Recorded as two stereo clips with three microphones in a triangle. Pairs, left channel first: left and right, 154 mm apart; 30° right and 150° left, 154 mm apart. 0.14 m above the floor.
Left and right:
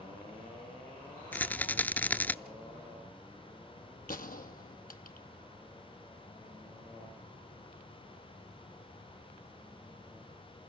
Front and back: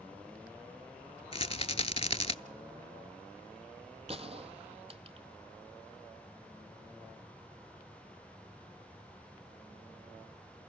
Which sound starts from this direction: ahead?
A rattle, at 1.3 s.